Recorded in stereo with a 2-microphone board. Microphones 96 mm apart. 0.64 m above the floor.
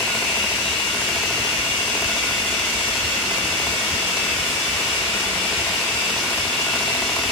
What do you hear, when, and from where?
0.0 s running water: 25° left (ahead or behind), 9.5 m